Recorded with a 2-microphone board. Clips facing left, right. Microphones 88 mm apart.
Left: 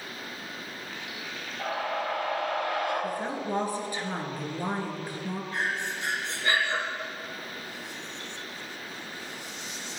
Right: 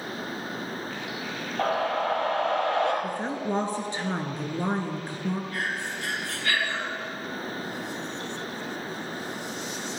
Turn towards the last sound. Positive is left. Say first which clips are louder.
# even
turn(degrees=20)  # may be behind; listen again after turning